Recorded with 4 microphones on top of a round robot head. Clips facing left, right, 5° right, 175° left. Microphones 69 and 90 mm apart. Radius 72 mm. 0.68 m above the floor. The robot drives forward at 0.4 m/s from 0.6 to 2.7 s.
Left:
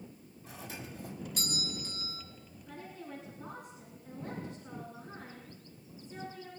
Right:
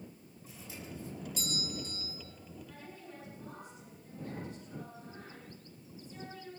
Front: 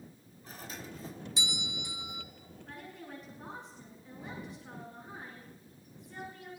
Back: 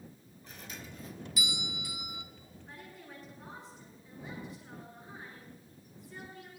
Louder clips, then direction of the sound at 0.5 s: Left 3 dB, front 3 dB; 50° left.